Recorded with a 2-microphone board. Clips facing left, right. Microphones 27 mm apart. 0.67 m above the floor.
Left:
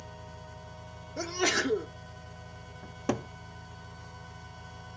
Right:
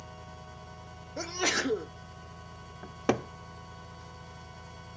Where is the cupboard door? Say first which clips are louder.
Right 3 dB; 35° right (ahead or behind), 0.5 m.